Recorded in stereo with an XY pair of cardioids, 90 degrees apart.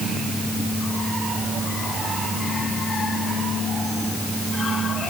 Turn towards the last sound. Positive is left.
No sound to turn to.